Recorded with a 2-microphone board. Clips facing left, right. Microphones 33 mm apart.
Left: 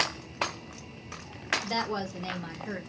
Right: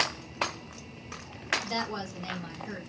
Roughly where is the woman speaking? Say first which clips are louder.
Left 2 dB; left.